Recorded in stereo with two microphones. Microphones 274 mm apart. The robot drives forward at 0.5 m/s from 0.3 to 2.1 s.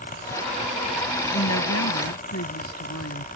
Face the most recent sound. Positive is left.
turn(degrees=65)  # may be behind; listen again after turning